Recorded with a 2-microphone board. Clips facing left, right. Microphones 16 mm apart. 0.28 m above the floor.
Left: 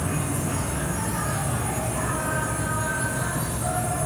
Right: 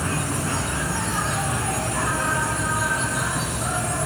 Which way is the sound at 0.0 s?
70° right (ahead or behind).